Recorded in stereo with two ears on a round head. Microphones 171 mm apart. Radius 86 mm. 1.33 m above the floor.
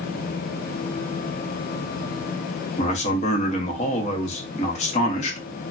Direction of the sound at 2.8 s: 35° left (ahead or behind).